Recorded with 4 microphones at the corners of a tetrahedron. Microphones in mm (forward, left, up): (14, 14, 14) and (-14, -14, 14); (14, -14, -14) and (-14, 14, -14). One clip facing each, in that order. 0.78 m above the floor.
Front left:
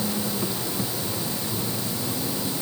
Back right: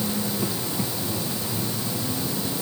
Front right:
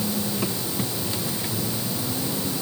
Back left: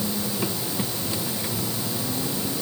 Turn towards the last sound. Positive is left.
No sound to turn to.